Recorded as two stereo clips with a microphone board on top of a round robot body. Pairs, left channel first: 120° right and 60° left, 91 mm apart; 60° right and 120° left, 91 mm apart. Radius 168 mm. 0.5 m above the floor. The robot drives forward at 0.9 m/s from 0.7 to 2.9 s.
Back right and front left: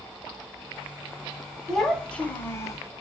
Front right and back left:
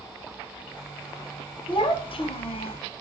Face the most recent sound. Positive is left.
turn(degrees=-80)